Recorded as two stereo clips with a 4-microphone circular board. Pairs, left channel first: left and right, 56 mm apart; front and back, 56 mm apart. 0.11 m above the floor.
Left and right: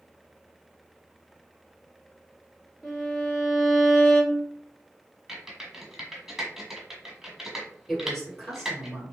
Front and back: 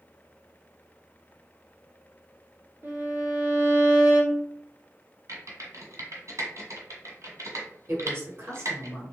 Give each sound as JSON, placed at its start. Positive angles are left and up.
{"t": 2.8, "sound": "a violin", "azimuth_deg": 175, "distance_m": 1.1}
{"t": 5.3, "sound": "typing on a keyboard", "azimuth_deg": -170, "distance_m": 1.4}
{"t": 7.9, "sound": "a woman speaking", "azimuth_deg": 180, "distance_m": 1.3}